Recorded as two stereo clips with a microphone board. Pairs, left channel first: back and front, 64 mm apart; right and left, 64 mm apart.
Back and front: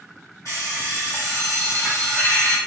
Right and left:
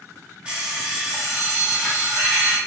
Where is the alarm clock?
155° left, 1.1 m.